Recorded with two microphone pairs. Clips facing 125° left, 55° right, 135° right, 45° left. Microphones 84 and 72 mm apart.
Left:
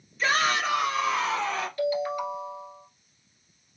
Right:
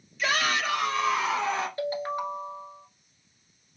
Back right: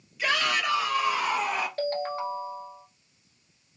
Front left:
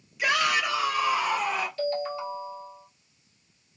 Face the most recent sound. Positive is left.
turn(degrees=-105)